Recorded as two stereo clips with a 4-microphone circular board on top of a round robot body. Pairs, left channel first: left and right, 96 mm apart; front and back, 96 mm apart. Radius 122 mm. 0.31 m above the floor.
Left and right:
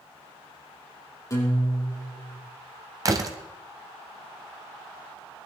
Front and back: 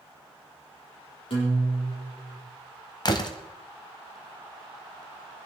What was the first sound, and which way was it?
A guitar, 30° left.